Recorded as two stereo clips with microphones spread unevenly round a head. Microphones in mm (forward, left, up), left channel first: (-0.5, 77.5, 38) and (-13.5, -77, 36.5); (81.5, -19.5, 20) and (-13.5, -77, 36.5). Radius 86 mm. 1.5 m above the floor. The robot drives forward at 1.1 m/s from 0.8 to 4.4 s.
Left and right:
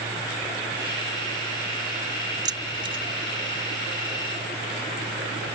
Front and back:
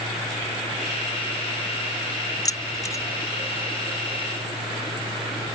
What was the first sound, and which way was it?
Keys jangling, 30° right.